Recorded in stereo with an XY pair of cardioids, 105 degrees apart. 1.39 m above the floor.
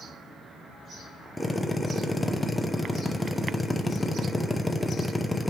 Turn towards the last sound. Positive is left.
turn(degrees=15)